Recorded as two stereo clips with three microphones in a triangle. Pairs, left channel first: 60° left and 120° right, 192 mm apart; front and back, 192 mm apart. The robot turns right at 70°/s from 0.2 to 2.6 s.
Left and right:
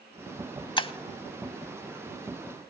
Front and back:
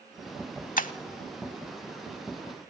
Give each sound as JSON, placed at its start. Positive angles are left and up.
{"t": 0.8, "sound": "breaking glass", "azimuth_deg": 5, "distance_m": 0.7}